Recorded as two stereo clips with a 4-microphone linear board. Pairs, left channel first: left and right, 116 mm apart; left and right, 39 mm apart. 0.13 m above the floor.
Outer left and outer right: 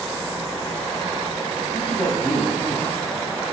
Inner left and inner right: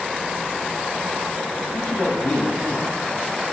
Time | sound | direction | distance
1.7 | a man speaking | 35° left (ahead or behind) | 1.7 m